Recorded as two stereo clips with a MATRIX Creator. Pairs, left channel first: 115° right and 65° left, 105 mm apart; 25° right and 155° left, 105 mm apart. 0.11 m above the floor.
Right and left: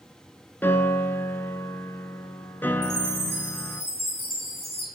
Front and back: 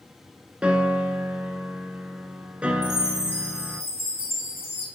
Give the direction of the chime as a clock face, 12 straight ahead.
12 o'clock.